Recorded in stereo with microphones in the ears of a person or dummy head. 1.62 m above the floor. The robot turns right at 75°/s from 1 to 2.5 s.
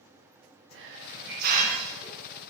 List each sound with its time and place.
0.7 s a hiss: 90° right, 1.3 m; by 2.4 s 15° left, 1.3 m